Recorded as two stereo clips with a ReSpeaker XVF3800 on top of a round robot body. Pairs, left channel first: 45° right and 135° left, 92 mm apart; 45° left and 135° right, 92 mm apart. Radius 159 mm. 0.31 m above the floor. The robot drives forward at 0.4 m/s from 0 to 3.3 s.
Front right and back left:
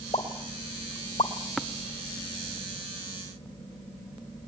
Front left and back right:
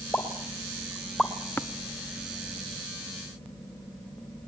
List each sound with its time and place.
0.1 s a pop: 30° right, 2.5 m; by 1.3 s 35° right, 2 m
1.6 s tapping: 30° left, 1.3 m; by 1.7 s 35° left, 1.3 m